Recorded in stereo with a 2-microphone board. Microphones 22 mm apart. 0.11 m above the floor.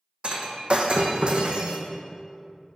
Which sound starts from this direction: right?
Breaking glass, at 0.2 s.